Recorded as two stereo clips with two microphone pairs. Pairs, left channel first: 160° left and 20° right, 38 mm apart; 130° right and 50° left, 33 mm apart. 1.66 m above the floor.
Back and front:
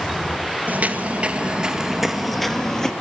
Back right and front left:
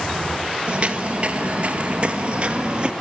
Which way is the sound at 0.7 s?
5° left.